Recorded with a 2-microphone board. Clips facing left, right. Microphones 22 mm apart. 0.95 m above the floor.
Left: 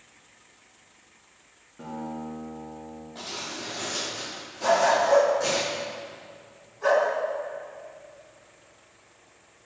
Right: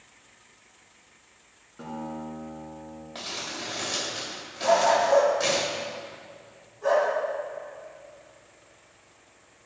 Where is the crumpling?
65° right (ahead or behind), 2.5 m.